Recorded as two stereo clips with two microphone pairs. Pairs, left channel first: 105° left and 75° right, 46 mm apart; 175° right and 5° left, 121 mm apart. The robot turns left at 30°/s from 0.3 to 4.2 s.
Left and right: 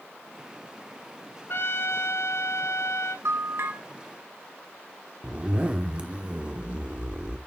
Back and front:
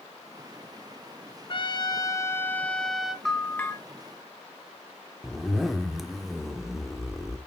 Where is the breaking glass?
No breaking glass in this recording.